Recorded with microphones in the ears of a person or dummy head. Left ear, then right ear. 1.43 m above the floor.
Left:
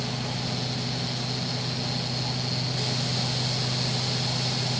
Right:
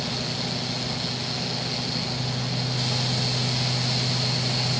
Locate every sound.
Only background noise.